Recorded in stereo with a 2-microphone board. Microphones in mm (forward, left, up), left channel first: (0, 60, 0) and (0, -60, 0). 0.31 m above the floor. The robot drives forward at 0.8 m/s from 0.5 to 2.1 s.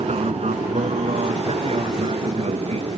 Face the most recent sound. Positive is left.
turn(degrees=-60)  # may be behind; listen again after turning